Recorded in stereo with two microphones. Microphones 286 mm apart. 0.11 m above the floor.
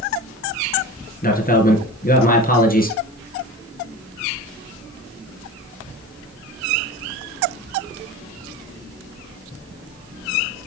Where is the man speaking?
30° left (ahead or behind), 2 m.